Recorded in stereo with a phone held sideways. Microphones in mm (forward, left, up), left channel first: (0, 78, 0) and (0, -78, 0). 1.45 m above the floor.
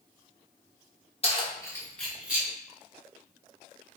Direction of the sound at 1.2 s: 40° left (ahead or behind).